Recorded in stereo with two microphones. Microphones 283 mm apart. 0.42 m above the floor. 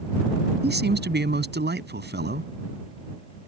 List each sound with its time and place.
0.6 s a man speaking: 35° right (ahead or behind)